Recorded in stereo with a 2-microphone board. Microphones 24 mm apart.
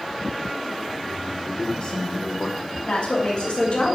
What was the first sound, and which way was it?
A man speaking, 40° left (ahead or behind).